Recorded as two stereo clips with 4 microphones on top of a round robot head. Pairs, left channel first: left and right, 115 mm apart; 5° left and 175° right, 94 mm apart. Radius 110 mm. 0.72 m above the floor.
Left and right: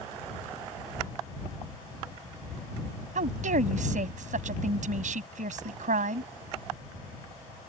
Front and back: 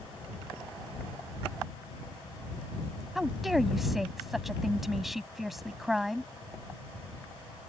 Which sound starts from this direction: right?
A woman speaking, at 3.1 s.